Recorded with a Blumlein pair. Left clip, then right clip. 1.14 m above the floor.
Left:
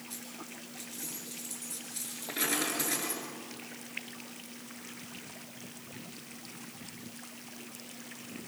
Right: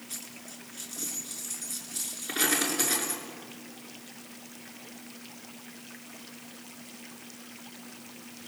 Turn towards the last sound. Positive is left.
turn(degrees=-40)